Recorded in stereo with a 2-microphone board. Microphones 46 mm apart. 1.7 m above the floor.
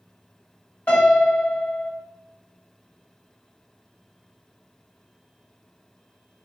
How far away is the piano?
About 2.0 m.